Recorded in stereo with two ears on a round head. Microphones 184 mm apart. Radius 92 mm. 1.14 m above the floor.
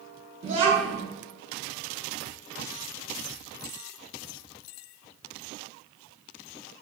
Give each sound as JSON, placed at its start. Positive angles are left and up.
{"t": 0.4, "sound": "a child speaking", "side_deg": -40, "distance_m": 1.1}